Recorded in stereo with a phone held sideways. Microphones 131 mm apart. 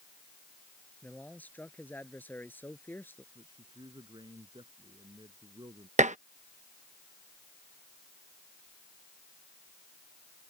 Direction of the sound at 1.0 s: 10° left (ahead or behind).